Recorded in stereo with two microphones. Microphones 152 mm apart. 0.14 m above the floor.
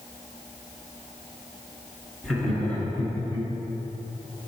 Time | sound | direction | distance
2.2 | laughter | centre (ahead or behind) | 2 m